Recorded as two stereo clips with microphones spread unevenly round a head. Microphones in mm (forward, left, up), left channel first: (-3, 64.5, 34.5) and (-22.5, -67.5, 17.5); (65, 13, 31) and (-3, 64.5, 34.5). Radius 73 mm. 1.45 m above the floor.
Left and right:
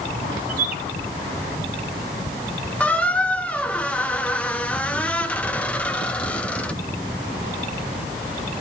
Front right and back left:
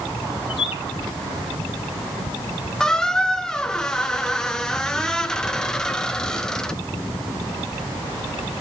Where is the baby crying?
No baby crying in this recording.